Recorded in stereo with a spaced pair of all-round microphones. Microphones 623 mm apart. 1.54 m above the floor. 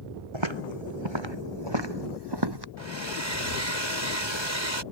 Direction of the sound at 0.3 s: 45° right (ahead or behind).